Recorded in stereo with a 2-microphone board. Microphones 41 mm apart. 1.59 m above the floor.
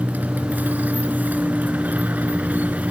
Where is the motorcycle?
45° right (ahead or behind).